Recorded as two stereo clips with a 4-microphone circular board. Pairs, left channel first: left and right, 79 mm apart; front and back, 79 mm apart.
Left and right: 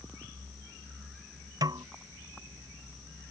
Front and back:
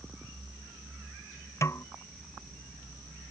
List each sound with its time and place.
1.6 s a snare drum: 55° right